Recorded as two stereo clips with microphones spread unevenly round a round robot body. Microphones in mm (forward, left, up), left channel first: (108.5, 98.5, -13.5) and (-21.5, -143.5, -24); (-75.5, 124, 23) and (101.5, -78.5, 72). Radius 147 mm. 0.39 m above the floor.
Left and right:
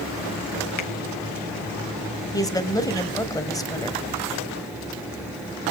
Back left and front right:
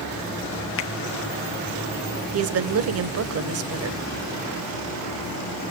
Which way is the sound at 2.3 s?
15° right.